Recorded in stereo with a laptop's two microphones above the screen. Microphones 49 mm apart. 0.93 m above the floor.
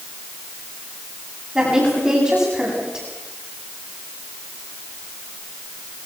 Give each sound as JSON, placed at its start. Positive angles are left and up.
{"t": 1.6, "sound": "a woman speaking", "side_deg": -15, "distance_m": 8.5}